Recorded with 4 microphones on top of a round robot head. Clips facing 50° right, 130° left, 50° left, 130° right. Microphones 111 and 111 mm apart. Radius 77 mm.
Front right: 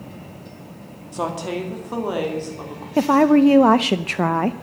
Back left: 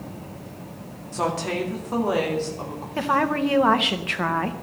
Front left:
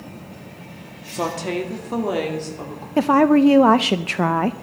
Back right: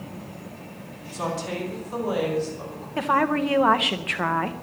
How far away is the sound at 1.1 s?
About 2 m.